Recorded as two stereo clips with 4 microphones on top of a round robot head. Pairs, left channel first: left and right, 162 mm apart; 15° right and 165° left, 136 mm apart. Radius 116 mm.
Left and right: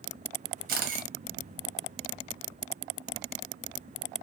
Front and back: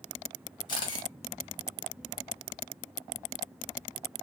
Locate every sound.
0.7 s a camera shutter: 70° right, 0.9 m